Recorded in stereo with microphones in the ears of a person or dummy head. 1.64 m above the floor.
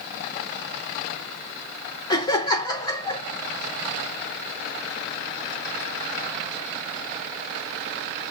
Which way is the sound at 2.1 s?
20° left (ahead or behind).